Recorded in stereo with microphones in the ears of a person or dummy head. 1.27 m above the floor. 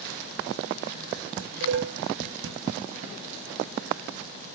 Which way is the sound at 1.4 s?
70° right (ahead or behind).